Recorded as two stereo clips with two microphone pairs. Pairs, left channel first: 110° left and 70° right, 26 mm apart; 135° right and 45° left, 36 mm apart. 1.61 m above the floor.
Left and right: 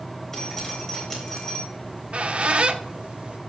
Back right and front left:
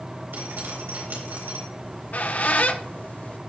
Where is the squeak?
110° right, 0.9 m.